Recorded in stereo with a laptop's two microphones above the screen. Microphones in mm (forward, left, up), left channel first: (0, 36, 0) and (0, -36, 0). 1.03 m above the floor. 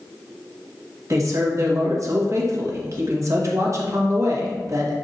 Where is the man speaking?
45° right (ahead or behind), 1.8 m.